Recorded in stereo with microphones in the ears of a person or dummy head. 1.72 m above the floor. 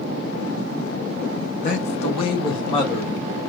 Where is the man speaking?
35° left (ahead or behind), 1.8 m; by 3.4 s 10° left (ahead or behind), 3 m.